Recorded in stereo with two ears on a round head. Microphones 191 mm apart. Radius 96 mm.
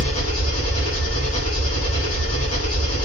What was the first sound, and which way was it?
An engine running, 80° left.